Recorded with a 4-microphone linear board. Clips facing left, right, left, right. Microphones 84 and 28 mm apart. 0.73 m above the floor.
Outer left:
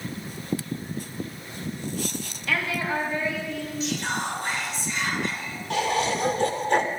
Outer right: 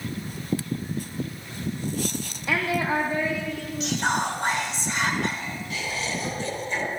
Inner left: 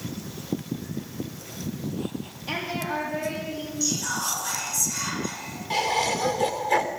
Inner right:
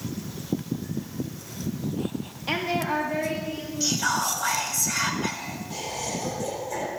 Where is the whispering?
70° right (ahead or behind), 4 m.